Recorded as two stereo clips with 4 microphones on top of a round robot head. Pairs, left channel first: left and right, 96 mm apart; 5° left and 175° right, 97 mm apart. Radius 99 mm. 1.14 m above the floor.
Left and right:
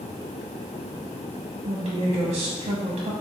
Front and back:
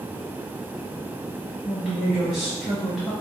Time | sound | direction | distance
1.6 | a woman speaking | 70° right | 0.7 m